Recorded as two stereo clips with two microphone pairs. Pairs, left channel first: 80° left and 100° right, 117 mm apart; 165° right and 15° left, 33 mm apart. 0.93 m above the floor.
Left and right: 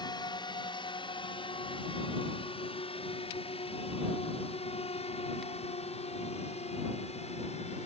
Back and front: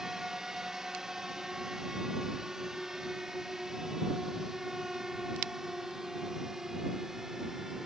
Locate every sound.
0.0 s a drone: 80° left; by 7.9 s 90° left